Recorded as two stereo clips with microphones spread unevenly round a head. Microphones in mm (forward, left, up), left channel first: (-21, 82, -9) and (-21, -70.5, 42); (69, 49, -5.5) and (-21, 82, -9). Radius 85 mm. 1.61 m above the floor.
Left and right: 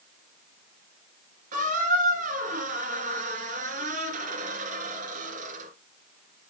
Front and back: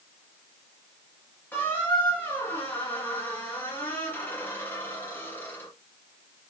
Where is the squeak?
95° right, 3 m.